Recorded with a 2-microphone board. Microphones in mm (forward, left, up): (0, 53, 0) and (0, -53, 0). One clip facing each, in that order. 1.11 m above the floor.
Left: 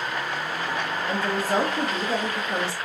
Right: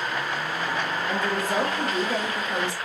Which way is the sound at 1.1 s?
35° left (ahead or behind).